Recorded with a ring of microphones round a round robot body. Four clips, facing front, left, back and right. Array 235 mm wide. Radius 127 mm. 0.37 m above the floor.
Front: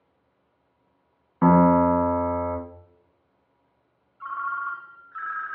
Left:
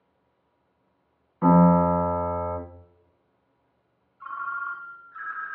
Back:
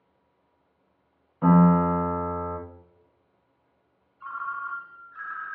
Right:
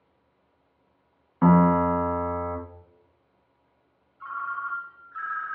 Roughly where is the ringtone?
Ahead.